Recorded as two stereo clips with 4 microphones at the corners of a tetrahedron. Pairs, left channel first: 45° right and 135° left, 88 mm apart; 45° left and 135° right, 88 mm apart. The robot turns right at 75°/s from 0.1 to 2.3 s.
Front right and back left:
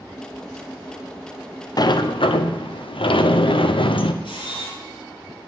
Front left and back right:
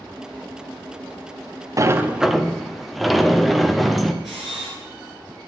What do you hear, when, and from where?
1.8 s a sliding door: 85° right, 0.7 m; by 4.1 s 45° right, 0.7 m
4.2 s a camera shutter: 50° right, 4.5 m